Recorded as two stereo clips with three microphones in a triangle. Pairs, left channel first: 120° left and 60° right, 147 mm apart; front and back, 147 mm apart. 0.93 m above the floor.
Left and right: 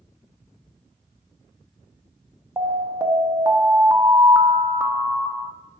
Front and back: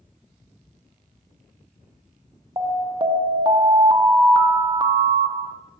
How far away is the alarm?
About 0.7 m.